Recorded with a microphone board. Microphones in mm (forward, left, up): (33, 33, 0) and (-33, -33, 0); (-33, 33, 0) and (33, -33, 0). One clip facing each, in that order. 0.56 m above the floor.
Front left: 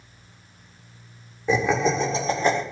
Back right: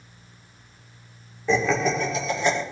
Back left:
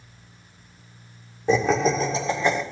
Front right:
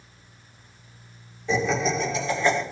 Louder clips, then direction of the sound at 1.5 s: Front left 1 dB, back left 4 dB; 120° left.